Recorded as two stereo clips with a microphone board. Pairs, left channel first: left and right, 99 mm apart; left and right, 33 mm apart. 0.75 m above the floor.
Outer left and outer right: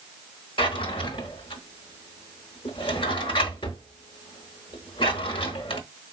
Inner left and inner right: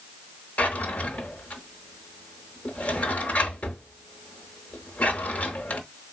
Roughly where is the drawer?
Left.